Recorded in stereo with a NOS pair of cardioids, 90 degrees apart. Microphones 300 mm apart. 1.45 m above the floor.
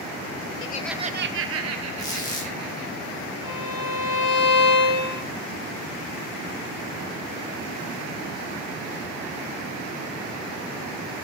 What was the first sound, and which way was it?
Laughter, 45° left.